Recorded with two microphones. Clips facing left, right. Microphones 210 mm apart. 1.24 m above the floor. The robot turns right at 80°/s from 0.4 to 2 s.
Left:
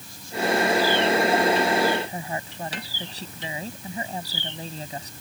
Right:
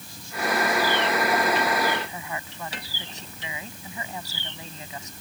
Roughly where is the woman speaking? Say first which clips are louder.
Left 4 dB; left.